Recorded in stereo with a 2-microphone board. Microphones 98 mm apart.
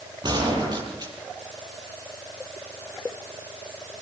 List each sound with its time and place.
0.2 s a gunshot: 45° right (ahead or behind), 7.5 m